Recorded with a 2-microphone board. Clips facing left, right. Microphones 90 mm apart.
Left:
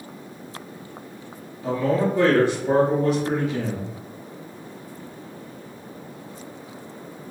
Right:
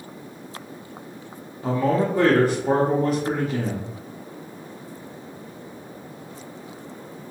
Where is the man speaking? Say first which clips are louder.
Even; 40° right (ahead or behind), 1.2 m.